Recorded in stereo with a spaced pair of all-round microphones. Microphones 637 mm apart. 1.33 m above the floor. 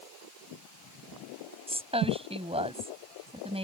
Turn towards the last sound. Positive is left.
turn(degrees=-10)  # may be behind; listen again after turning